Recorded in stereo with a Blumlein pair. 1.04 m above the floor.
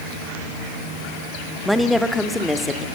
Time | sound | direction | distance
1.6 | a woman speaking | straight ahead | 1.7 m